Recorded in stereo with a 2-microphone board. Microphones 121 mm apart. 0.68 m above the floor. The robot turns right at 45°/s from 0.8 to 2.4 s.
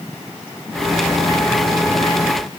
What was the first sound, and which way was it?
Only background noise.